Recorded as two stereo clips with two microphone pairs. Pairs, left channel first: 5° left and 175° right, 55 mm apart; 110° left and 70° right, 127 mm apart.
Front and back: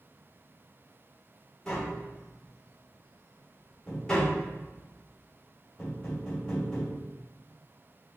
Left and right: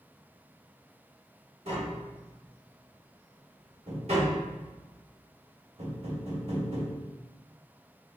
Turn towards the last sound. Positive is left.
turn(degrees=-70)